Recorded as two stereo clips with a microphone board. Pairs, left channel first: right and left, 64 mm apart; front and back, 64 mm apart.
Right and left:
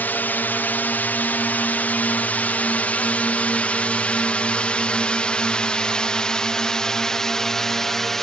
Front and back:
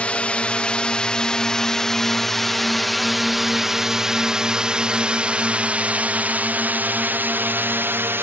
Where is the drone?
55° right; by 8.2 s 170° right.